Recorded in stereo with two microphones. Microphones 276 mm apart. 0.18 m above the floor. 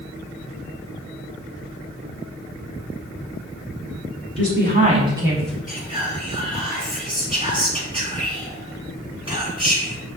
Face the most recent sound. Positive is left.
turn(degrees=-20)  # may be behind; listen again after turning